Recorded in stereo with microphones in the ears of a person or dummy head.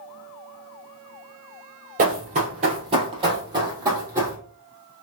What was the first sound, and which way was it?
Running footsteps, 45° right (ahead or behind).